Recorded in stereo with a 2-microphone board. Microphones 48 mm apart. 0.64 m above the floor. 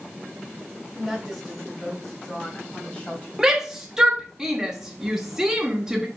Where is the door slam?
No door slam in this recording.